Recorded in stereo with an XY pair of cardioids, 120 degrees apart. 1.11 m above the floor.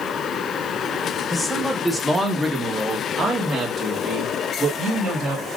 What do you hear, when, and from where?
1.3 s a man speaking: 15° left, 1.1 m; by 5.5 s 60° right, 2 m